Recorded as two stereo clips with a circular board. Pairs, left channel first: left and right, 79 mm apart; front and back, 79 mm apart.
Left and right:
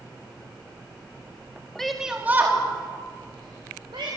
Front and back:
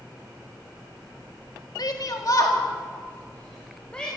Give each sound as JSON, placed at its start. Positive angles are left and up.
{"t": 1.8, "sound": "a shout", "azimuth_deg": 5, "distance_m": 1.8}